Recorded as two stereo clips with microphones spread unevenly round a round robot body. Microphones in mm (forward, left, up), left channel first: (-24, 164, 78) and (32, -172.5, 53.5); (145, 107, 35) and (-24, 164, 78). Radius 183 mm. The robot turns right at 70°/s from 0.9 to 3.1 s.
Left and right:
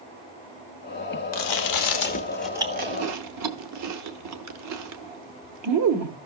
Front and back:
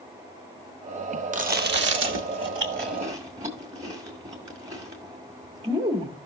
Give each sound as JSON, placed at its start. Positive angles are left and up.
{"t": 1.3, "sound": "chewing", "azimuth_deg": 110, "distance_m": 1.0}